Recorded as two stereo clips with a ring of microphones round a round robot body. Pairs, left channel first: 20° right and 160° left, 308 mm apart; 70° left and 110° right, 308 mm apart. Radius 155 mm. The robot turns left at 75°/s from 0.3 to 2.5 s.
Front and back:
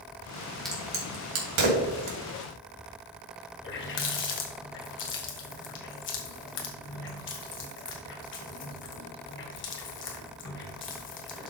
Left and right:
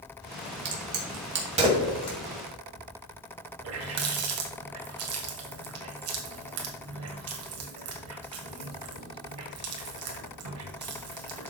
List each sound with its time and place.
0.7 s a crack: 110° right, 2.5 m; by 2.2 s 135° left, 2.5 m
3.6 s a running tap: 75° right, 1.6 m